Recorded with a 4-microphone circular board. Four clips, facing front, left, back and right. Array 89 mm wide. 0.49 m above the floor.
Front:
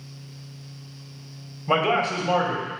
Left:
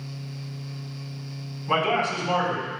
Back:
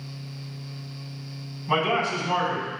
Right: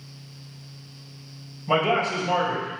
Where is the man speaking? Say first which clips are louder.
Right 1 dB, front 2 dB; 15° right, 2.5 m.